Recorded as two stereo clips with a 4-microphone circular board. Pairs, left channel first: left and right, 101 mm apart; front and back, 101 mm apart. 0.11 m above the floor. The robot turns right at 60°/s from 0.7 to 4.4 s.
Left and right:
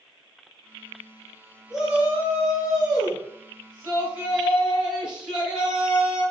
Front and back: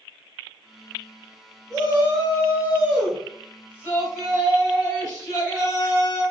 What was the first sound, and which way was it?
A shout, 175° right.